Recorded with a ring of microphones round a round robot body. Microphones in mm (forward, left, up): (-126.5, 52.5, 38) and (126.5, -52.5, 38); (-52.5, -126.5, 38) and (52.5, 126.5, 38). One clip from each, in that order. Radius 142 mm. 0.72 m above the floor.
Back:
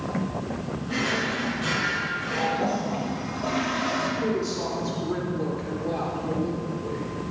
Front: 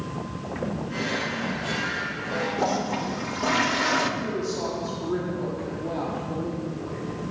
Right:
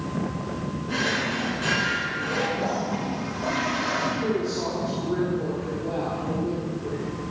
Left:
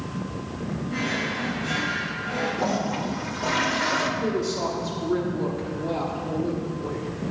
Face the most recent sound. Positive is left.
turn(degrees=55)